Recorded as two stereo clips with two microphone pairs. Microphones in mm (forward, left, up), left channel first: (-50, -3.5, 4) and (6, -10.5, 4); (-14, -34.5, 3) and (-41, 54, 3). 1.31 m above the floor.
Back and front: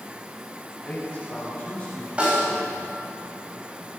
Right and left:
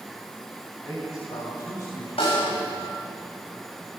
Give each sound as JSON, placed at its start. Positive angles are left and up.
{"t": 0.8, "sound": "a man speaking", "azimuth_deg": -110, "distance_m": 9.0}
{"t": 2.2, "sound": "a snare drum", "azimuth_deg": -75, "distance_m": 8.5}